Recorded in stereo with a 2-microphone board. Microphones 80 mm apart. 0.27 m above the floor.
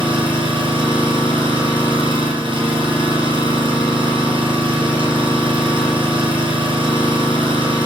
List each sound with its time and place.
0.0 s an engine running: 75° right (ahead or behind), 6.5 m